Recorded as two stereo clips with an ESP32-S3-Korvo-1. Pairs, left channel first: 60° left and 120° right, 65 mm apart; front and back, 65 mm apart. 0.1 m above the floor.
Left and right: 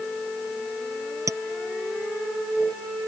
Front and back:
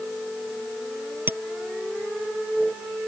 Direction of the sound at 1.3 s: 130° right.